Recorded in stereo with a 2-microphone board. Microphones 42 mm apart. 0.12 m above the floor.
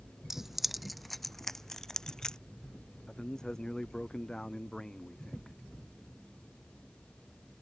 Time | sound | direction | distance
0.3 | keys jangling | 10° right (ahead or behind) | ?
3.1 | a man speaking | 15° left (ahead or behind) | ?